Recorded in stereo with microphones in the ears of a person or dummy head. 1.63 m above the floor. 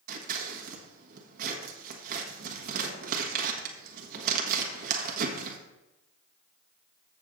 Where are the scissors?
55° right (ahead or behind), 1.4 m.